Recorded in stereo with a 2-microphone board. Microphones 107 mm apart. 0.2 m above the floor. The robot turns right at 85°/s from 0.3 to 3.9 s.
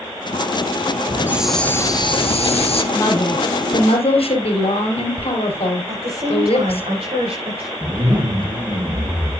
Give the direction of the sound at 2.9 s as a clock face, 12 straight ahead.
11 o'clock.